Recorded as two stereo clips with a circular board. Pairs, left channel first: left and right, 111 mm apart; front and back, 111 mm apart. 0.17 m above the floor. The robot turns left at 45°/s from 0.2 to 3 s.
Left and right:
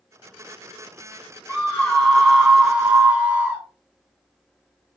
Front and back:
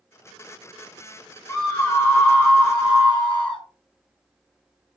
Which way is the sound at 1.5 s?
20° left.